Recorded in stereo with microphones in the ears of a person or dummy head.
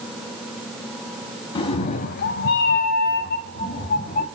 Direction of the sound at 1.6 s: 30° left (ahead or behind).